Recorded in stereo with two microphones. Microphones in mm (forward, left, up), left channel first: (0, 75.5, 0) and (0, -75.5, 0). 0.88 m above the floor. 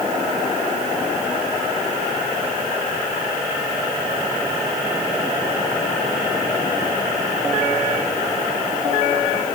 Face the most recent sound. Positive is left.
No sound to turn to.